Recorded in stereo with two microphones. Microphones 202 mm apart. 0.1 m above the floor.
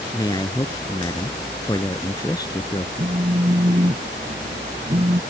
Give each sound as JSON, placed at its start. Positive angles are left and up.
{"t": 0.1, "sound": "a man speaking", "side_deg": 20}
{"t": 3.0, "sound": "a phone buzzing", "side_deg": -30}